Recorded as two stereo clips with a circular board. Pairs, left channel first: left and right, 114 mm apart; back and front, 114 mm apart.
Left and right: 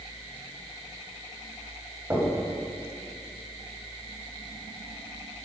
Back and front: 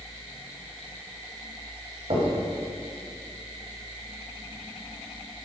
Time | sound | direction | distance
2.1 | knocking | 25° right | 3.5 m